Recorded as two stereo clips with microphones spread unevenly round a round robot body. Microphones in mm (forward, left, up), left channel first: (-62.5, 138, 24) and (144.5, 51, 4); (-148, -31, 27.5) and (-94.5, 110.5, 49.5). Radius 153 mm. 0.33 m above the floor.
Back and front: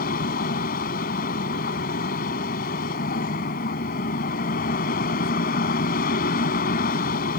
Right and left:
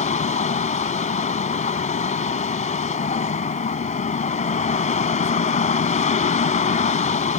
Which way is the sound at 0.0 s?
145° right.